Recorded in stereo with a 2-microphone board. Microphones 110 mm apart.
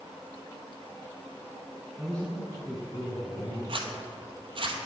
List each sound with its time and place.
2.0 s a man speaking: centre (ahead or behind), 1.2 m; by 3.6 s 60° left (ahead or behind), 2.5 m
3.7 s a zipper: 55° right (ahead or behind), 0.8 m